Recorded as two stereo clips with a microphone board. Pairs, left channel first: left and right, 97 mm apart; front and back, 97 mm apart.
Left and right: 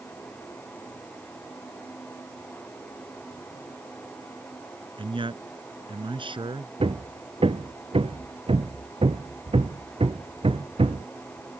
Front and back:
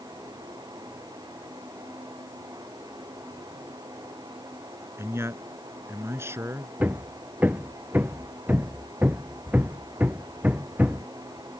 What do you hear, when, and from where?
5.0 s a man speaking: 120° right
6.8 s hammering: 105° right